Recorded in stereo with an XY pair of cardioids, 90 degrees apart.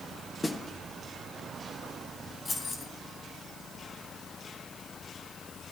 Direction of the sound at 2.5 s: 40° left.